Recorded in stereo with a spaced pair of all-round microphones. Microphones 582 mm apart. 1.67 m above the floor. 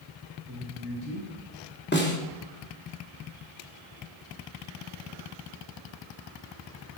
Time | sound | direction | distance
0.5 | a man speaking | 30° right (ahead or behind) | 8.5 m
1.9 | a snare drum | 15° left (ahead or behind) | 3 m